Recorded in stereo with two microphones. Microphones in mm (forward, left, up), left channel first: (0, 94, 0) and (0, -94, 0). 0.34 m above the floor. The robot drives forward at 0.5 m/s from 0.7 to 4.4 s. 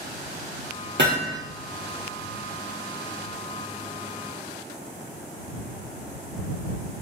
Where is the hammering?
75° right (ahead or behind), 3 m; by 1.4 s 80° right, 3 m.